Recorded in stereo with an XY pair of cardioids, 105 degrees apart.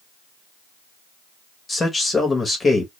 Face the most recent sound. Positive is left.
turn(degrees=25)